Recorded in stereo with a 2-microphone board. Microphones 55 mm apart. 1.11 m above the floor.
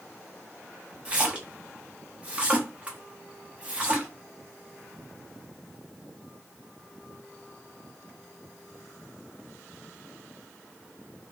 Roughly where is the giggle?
I don't hear a giggle.